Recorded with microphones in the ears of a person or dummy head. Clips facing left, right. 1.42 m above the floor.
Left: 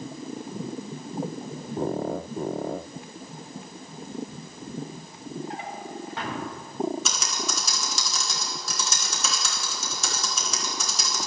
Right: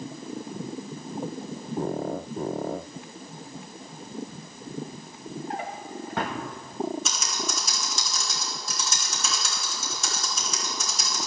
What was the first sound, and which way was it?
A drawer, 45° right (ahead or behind).